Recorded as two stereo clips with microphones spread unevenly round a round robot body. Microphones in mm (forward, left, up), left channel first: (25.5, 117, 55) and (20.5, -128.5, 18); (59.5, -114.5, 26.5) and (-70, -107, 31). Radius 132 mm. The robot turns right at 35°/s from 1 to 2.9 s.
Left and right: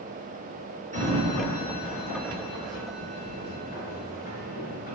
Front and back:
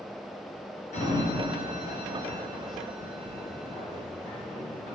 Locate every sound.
0.9 s a sliding door: 30° right, 3 m; by 5.0 s 35° left, 3 m